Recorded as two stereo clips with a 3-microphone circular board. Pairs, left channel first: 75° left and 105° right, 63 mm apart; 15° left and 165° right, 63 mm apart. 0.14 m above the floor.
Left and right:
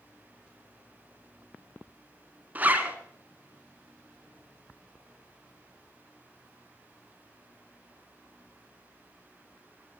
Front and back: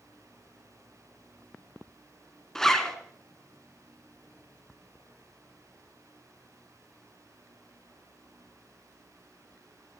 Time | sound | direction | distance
2.5 | a zipper | 60° right | 1.3 m